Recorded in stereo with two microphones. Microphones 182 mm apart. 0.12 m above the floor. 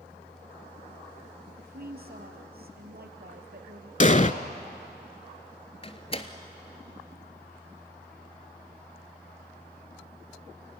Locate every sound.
1.6 s a woman speaking: 60° right (ahead or behind), 3 m
4.0 s an explosion: 40° left (ahead or behind), 0.7 m
5.8 s a door slam: 35° left (ahead or behind), 1.3 m